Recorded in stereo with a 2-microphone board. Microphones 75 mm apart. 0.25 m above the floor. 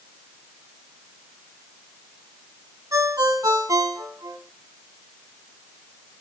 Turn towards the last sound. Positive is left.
turn(degrees=-55)  # may be behind; listen again after turning